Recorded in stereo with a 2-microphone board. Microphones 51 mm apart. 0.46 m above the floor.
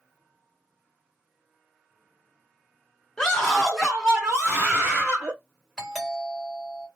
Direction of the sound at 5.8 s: Centre (ahead or behind).